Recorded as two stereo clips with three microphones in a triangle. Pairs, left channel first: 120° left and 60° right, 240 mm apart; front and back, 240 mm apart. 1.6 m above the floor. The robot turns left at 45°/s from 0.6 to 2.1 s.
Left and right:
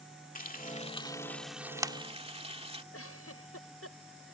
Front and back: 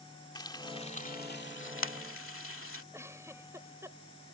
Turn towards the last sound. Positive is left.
turn(degrees=100)